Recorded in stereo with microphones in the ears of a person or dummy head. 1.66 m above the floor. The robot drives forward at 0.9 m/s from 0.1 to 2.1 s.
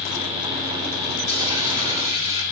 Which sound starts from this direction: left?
A dropped coin, at 1.3 s.